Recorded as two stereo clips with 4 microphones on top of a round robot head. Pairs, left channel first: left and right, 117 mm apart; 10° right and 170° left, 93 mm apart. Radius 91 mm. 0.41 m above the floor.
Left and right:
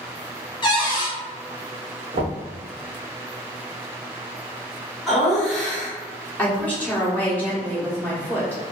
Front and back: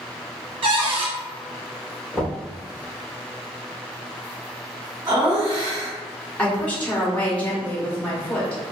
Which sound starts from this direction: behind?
Laughter, at 5.1 s.